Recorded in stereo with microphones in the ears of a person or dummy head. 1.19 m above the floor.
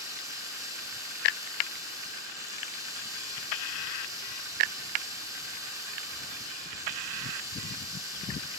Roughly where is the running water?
Centre.